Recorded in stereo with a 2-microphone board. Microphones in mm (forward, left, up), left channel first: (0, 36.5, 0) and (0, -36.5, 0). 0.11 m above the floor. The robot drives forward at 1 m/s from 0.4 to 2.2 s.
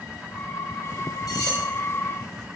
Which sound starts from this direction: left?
Cutlery clinking, at 1.3 s.